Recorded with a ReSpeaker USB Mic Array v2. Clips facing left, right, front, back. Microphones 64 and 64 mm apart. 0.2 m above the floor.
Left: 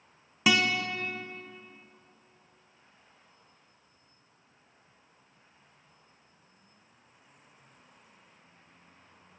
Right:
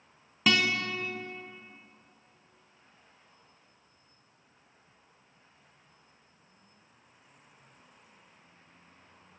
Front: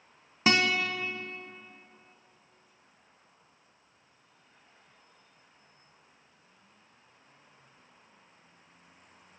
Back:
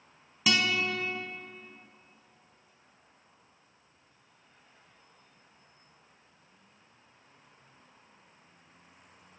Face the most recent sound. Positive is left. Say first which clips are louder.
# left 1 dB, front 2 dB
turn(degrees=20)